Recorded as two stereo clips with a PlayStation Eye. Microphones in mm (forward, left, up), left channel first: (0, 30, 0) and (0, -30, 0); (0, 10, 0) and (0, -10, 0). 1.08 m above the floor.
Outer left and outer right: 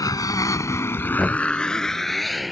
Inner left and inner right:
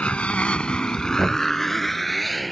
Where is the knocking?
5° left (ahead or behind).